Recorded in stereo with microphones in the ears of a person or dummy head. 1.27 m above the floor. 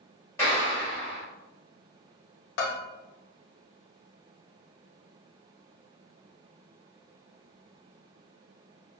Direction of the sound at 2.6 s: 70° left (ahead or behind).